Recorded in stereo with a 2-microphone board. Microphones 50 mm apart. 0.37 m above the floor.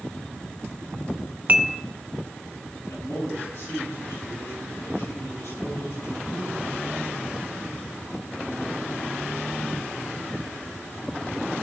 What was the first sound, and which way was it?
Dishes clattering, 30° right (ahead or behind).